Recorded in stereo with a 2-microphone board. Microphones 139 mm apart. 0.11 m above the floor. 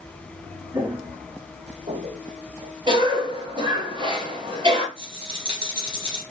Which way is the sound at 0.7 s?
20° right (ahead or behind).